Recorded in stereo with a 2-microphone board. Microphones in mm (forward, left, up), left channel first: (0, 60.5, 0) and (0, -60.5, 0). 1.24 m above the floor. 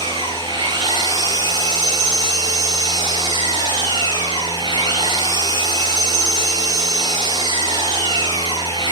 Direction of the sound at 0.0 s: 40° right (ahead or behind).